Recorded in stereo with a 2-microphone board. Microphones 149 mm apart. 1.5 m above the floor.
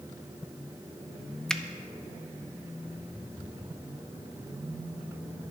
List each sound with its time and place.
1.5 s a finger snap: 5° left (ahead or behind), 0.6 m